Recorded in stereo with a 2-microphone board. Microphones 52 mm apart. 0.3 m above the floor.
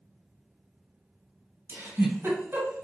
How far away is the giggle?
About 2 m.